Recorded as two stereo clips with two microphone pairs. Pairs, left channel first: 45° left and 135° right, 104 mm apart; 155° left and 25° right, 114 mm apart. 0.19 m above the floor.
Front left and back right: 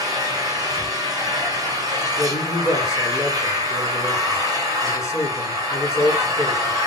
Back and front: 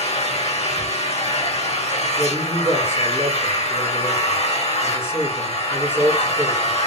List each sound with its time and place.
0.0 s an engine running: 170° left, 2.5 m
2.2 s a man speaking: 90° left, 3 m